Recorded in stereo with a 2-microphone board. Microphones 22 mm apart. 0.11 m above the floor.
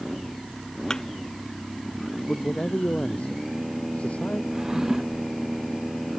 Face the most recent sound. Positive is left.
turn(degrees=-25)  # may be behind; listen again after turning